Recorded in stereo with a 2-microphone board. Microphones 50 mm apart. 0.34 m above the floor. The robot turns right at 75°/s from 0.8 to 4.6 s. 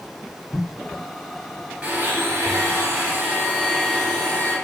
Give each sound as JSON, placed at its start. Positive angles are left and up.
{"t": 1.8, "sound": "a blender", "azimuth_deg": -155, "distance_m": 1.9}